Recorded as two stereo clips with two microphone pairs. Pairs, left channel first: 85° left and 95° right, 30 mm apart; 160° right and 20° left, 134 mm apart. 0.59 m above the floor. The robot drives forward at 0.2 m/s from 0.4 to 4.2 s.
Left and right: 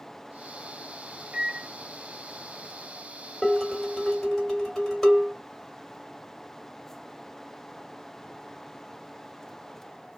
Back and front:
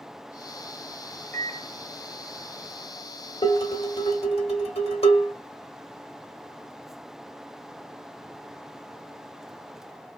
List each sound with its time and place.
1.3 s a microwave: 115° right, 0.7 m; by 1.7 s 125° right, 0.7 m
3.4 s dishes clattering: 160° left, 1.3 m; by 5.3 s 165° left, 1.5 m